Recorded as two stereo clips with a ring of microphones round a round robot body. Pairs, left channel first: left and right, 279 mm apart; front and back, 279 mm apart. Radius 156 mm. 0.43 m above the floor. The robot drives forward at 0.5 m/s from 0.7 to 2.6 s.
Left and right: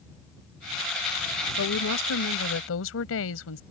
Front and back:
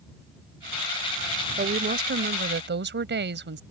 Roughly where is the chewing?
No chewing in this recording.